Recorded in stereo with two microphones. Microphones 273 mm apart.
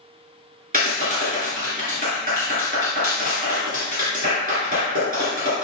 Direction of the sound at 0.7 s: 35° right (ahead or behind).